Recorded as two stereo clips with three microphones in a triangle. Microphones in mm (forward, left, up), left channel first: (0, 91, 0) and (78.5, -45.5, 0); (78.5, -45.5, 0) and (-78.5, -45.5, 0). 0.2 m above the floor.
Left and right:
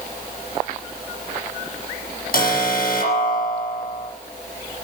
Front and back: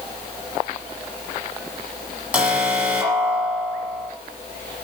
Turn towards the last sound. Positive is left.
turn(degrees=100)